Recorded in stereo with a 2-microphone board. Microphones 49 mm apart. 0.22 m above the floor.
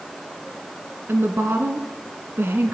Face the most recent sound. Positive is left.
turn(degrees=-45)  # may be behind; listen again after turning